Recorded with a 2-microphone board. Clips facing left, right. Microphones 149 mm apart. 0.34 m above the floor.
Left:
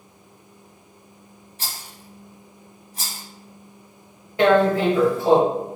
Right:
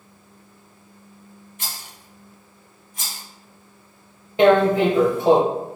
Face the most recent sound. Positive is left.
turn(degrees=-20)  # may be behind; listen again after turning